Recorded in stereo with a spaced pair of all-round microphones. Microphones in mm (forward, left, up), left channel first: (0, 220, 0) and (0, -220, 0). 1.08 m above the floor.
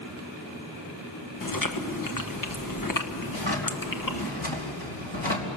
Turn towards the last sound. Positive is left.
turn(degrees=80)